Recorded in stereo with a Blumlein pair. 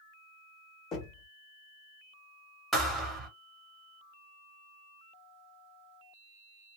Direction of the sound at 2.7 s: 10° right.